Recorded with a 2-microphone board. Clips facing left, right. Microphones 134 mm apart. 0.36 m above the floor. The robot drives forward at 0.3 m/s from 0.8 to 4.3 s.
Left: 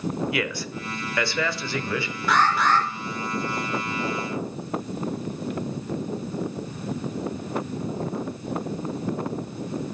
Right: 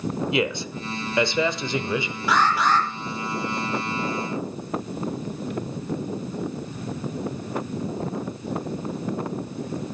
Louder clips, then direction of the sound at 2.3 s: Even; 10° right (ahead or behind).